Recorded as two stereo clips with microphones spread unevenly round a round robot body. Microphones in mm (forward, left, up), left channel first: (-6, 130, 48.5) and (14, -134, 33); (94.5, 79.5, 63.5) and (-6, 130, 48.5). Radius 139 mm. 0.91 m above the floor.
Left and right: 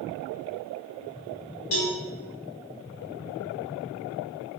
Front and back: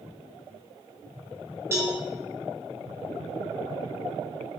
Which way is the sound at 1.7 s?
85° left.